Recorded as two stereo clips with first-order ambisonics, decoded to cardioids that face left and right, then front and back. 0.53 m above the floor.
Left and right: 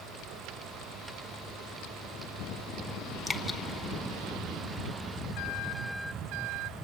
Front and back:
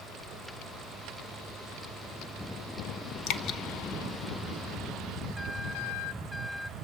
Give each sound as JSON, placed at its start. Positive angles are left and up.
{"t": 3.3, "sound": "dripping", "azimuth_deg": 5, "distance_m": 1.0}